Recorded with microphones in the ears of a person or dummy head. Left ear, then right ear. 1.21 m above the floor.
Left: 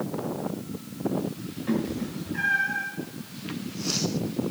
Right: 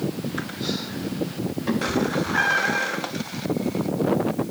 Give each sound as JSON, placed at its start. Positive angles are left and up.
{"t": 1.7, "sound": "a cat meowing", "side_deg": -45, "distance_m": 1.7}